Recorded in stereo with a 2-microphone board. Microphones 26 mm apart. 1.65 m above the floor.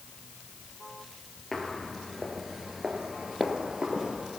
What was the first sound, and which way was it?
Footsteps, 15° left (ahead or behind).